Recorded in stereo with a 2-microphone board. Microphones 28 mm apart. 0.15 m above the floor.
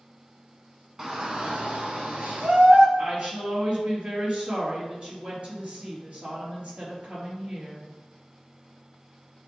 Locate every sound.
1.0 s a shout: 25° right (ahead or behind), 1.1 m; by 2.9 s 65° right (ahead or behind), 2.5 m
3.0 s a woman speaking: 50° right (ahead or behind), 3 m